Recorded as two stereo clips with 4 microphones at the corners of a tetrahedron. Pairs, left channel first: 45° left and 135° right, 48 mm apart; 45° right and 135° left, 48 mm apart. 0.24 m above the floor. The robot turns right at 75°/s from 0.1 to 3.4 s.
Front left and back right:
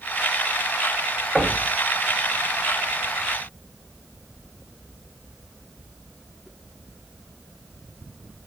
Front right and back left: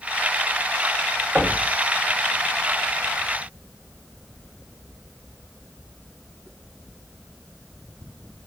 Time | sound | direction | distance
1.4 | knocking | 145° left | 0.9 m